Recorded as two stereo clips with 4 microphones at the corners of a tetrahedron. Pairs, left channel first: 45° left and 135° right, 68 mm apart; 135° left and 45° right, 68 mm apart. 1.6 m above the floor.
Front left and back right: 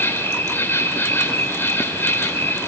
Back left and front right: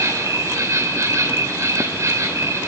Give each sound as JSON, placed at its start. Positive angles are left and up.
{"t": 0.0, "sound": "an insect", "azimuth_deg": -10, "distance_m": 2.5}